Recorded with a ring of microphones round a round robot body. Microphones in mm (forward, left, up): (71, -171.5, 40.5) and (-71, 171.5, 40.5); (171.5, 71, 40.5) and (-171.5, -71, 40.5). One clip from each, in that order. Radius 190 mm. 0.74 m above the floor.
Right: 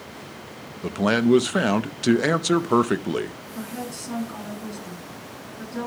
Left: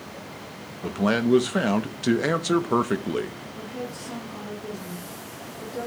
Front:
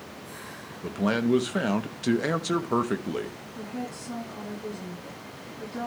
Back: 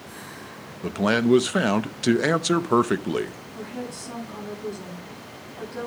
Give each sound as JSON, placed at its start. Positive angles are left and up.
{"t": 0.8, "sound": "a man speaking", "azimuth_deg": -120, "distance_m": 0.6}
{"t": 3.5, "sound": "a woman speaking", "azimuth_deg": -85, "distance_m": 7.0}